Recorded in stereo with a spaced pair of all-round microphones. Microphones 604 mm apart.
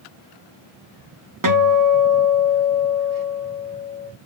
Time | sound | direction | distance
1.4 | a guitar | 35° right (ahead or behind) | 0.8 m